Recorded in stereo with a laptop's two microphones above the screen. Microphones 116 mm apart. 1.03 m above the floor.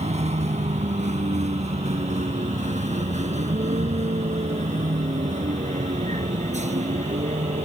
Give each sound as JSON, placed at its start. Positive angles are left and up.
{"t": 0.0, "sound": "a vehicle", "side_deg": -75}